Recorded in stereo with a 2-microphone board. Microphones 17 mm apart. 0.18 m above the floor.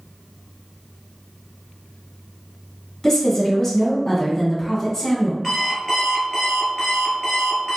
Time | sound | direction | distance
3.0 | a woman speaking | 30° left (ahead or behind) | 1.1 m
5.4 | an alarm clock | 5° left (ahead or behind) | 1.5 m